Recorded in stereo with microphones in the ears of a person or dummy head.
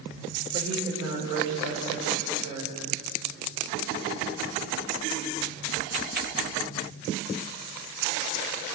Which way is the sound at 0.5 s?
25° right (ahead or behind).